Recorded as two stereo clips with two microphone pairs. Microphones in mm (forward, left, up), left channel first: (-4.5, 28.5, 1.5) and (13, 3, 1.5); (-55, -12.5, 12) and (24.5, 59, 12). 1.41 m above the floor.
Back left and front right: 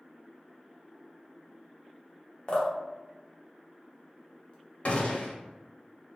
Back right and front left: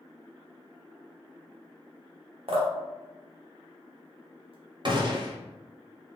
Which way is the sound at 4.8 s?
90° left.